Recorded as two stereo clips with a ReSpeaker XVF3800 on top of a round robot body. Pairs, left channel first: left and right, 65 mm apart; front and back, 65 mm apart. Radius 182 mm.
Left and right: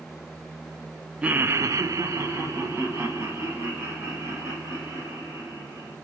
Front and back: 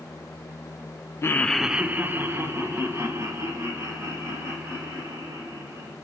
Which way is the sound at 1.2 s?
25° right.